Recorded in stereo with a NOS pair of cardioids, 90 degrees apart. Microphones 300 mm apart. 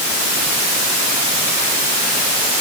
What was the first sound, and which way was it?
Only background noise.